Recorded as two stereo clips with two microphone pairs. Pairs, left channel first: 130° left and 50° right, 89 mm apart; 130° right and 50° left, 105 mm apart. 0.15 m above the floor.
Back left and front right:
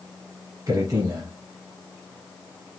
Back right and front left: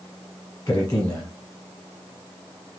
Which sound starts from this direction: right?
A man speaking, at 0.7 s.